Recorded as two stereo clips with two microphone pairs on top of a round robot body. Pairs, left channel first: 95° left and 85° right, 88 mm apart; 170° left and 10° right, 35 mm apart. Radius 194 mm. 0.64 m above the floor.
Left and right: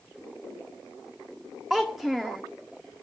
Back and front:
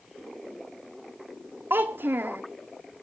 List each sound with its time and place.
1.7 s a child speaking: straight ahead, 0.6 m